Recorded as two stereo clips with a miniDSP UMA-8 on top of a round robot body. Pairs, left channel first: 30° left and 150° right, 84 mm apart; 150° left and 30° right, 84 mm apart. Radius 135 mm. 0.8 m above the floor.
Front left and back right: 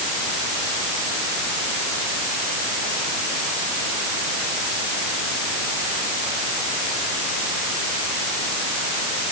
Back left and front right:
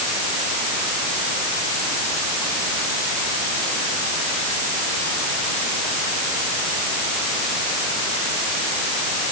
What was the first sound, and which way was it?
Only background noise.